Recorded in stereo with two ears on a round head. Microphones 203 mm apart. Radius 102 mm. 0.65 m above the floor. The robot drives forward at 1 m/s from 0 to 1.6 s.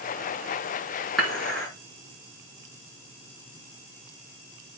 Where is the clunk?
No clunk in this recording.